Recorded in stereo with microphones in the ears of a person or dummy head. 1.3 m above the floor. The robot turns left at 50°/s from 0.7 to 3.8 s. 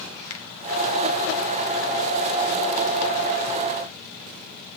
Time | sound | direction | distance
0.3 | a finger snap | 85° left | 1.9 m